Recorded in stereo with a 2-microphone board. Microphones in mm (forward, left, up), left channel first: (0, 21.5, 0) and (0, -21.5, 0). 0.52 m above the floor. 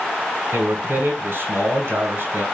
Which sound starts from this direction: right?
A man speaking, at 0.5 s.